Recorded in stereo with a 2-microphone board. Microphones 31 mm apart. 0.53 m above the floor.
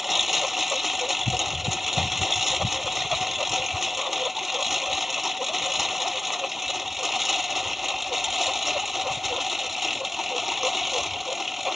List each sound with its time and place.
0.0 s a lawn mower: 5° right (ahead or behind)